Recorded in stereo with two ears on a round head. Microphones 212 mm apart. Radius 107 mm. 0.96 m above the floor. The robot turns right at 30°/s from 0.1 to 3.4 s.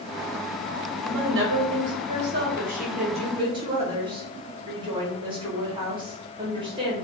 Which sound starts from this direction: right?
A woman speaking, at 1.0 s.